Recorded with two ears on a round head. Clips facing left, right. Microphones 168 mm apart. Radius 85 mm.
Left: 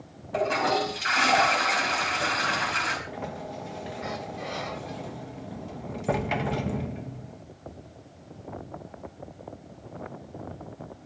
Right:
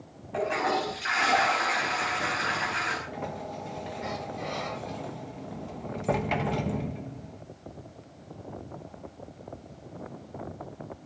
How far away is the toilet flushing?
About 5 m.